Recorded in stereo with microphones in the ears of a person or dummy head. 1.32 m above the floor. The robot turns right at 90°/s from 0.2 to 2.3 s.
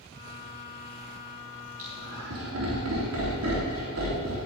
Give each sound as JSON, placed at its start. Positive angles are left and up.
{"t": 1.8, "sound": "laughter", "side_deg": -40, "distance_m": 3.5}